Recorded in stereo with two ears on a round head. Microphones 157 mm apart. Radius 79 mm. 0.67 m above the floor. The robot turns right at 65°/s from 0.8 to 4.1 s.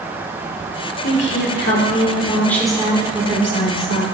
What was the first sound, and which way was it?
A woman speaking, 75° left.